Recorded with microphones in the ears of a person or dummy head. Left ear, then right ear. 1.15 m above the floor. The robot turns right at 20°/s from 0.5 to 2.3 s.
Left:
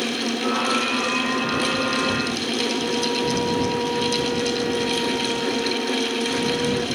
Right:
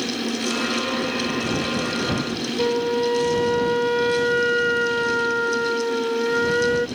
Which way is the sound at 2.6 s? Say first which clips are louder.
Right 5 dB; 65° right (ahead or behind).